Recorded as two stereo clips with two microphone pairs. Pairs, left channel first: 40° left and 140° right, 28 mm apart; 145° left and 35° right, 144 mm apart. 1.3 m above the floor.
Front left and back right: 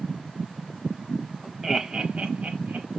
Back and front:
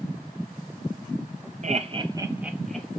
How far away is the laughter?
About 0.6 m.